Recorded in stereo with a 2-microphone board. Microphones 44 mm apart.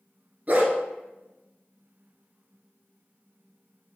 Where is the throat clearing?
I don't hear throat clearing.